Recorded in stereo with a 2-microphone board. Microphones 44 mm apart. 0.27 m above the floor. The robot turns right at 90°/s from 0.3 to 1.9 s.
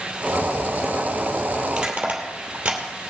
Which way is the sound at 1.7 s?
10° right (ahead or behind).